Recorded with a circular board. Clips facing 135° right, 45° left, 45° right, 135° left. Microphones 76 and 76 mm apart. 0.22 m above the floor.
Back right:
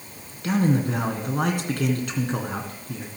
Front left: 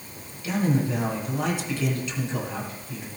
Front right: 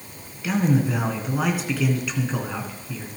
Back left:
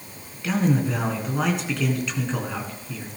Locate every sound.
0.4 s a man speaking: 130° right, 2.5 m